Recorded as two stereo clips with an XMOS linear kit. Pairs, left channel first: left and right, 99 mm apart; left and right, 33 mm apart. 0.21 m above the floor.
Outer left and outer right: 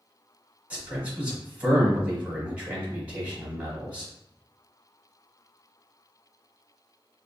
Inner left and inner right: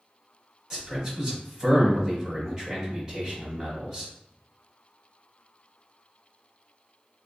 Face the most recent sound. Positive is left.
turn(degrees=-15)  # may be behind; listen again after turning